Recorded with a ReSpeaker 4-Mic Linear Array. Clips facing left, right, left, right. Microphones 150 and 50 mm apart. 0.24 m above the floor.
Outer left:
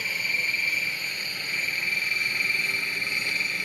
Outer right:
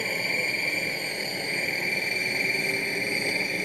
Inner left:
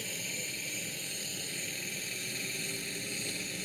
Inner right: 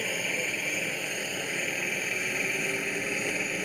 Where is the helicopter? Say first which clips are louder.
Outer right 8 dB, inner right 10 dB; 50° right (ahead or behind); by 3.6 s 45° right (ahead or behind).